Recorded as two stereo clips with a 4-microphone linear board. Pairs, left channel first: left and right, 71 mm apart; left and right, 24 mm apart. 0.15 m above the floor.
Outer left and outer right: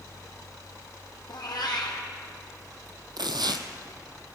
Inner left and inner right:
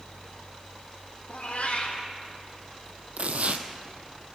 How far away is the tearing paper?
About 0.8 m.